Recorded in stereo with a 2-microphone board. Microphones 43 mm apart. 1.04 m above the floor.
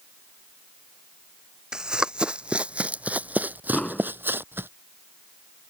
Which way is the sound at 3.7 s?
15° left (ahead or behind).